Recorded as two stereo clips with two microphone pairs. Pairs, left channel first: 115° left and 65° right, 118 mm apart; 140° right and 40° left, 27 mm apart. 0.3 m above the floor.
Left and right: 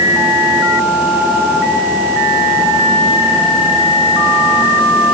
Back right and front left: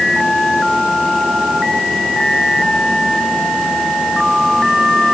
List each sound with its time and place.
Only background noise.